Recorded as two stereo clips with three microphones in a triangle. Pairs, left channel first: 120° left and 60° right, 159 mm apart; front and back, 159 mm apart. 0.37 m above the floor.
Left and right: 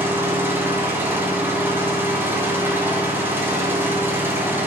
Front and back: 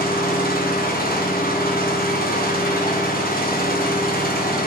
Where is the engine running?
15° left, 1.7 m.